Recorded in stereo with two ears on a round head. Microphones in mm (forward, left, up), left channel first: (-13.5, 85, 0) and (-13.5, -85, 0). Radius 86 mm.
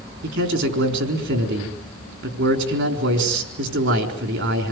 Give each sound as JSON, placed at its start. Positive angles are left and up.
{"t": 0.2, "sound": "a man speaking", "side_deg": -75, "distance_m": 4.0}